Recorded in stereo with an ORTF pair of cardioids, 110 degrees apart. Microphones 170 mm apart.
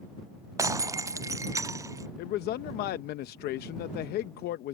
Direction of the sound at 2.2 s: 70° left.